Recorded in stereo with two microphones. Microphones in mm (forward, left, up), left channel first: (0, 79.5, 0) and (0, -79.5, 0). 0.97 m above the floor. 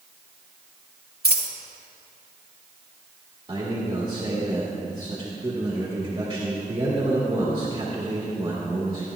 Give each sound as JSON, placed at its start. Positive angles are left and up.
{"t": 1.2, "sound": "a dropped coin", "side_deg": -75, "distance_m": 1.3}
{"t": 3.5, "sound": "a man speaking", "side_deg": -30, "distance_m": 1.8}